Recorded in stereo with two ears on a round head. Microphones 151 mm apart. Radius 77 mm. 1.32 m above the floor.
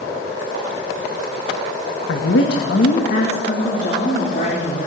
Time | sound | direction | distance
2.1 | a woman speaking | 85° left | 1.4 m